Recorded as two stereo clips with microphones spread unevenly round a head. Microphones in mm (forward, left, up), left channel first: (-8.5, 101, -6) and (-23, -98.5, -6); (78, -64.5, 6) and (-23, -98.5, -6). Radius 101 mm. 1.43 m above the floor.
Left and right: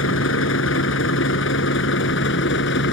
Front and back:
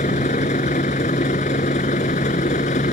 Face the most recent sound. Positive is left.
turn(degrees=50)